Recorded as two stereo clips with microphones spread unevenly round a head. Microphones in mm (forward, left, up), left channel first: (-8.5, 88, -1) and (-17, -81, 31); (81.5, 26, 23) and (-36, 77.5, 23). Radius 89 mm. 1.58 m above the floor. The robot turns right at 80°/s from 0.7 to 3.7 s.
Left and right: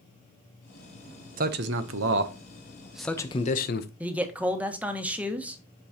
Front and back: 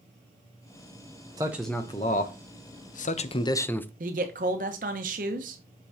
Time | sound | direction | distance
1.4 | a man speaking | 135° right | 0.8 m
4.0 | a man speaking | 170° right | 1.0 m